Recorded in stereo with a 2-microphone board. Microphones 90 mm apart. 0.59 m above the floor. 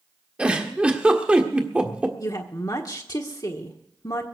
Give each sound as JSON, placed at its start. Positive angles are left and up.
{"t": 0.4, "sound": "a giggle", "side_deg": -15, "distance_m": 1.5}
{"t": 2.2, "sound": "a woman speaking", "side_deg": 45, "distance_m": 1.5}